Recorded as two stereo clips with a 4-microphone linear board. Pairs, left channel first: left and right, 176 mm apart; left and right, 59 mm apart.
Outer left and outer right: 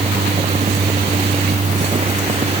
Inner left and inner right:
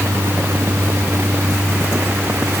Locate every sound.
Only background noise.